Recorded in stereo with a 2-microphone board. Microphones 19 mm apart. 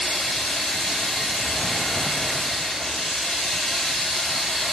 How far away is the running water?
About 5 m.